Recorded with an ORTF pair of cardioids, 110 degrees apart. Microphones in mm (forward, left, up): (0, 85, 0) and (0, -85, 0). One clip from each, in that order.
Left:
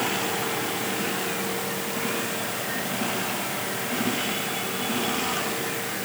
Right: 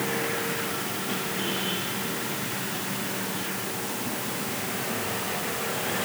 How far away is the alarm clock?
I don't hear an alarm clock.